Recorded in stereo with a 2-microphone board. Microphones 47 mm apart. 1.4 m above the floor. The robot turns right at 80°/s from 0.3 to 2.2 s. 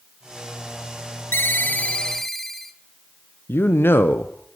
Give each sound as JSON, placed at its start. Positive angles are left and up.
{"t": 1.3, "sound": "a ringtone", "azimuth_deg": 100, "distance_m": 1.2}
{"t": 3.5, "sound": "a man speaking", "side_deg": 55, "distance_m": 0.9}